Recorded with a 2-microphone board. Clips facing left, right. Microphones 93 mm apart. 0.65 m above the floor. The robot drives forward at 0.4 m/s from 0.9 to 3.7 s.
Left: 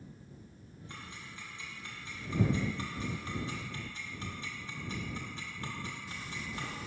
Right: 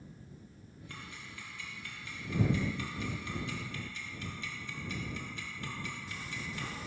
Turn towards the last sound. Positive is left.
turn(degrees=35)  # may be behind; listen again after turning